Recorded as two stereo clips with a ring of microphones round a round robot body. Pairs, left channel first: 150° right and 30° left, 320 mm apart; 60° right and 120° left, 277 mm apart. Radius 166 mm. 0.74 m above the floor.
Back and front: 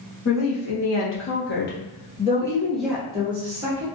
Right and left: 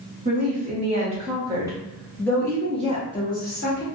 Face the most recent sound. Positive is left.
turn(degrees=-25)